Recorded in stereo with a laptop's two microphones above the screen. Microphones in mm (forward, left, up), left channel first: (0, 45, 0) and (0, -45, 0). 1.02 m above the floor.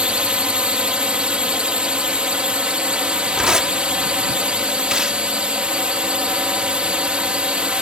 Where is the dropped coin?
I don't hear a dropped coin.